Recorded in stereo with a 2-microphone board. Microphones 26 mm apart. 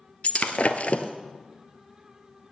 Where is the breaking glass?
70° left (ahead or behind), 1.0 m.